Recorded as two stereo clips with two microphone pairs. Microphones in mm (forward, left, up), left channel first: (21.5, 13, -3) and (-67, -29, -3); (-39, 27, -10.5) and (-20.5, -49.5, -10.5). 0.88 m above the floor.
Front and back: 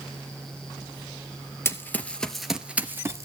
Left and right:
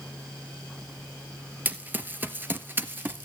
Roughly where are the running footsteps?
Ahead right.